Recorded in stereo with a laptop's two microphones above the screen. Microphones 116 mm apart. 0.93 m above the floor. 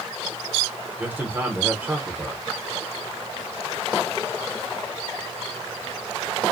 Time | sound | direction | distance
1.0 | a man speaking | 15° right (ahead or behind) | 0.7 m